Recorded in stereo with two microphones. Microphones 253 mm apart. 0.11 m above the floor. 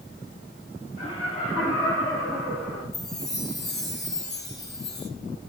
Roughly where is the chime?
Left.